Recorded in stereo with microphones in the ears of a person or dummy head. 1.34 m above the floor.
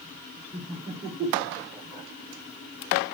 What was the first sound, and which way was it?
Laughter, 30° right (ahead or behind).